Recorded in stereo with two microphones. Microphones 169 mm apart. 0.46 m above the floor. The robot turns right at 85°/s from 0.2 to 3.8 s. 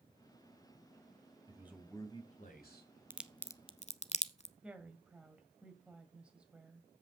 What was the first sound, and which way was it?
A man speaking, 25° right.